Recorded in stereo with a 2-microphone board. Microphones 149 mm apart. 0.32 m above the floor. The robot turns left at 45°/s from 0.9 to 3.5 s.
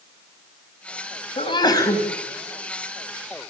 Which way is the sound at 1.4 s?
50° left.